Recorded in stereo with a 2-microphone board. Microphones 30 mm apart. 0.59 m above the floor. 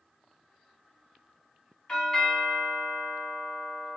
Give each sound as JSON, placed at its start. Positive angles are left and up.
{"t": 1.9, "sound": "a doorbell", "side_deg": 20, "distance_m": 1.3}